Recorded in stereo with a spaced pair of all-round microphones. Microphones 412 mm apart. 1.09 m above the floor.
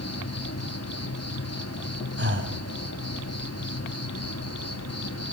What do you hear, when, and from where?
0.0 s an insect: 35° left (ahead or behind), 1.4 m
2.2 s breathing: 25° right (ahead or behind), 2.5 m